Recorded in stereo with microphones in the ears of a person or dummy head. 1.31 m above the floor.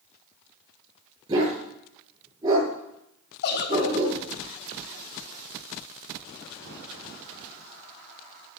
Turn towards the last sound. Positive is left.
turn(degrees=60)  # may be behind; listen again after turning